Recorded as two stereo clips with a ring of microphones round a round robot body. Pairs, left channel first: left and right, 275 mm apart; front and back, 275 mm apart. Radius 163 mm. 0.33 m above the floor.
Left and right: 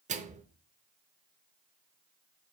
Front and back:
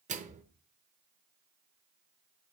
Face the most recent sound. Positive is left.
turn(degrees=-135)